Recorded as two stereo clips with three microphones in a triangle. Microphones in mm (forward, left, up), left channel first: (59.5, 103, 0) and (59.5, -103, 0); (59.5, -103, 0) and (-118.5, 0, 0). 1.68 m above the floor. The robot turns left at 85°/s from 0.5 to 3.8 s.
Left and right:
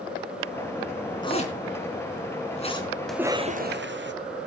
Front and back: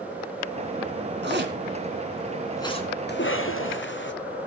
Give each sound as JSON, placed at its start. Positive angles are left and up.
{"t": 1.2, "sound": "a zipper", "azimuth_deg": 155, "distance_m": 3.0}
{"t": 3.1, "sound": "a cough", "azimuth_deg": 0, "distance_m": 1.2}